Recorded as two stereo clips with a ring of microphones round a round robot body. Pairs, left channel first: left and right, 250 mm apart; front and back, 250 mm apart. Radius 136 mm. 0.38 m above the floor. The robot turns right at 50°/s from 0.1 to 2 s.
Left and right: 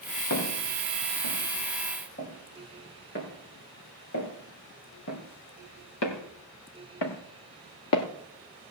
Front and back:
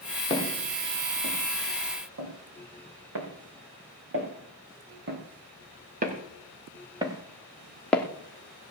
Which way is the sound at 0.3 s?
70° left.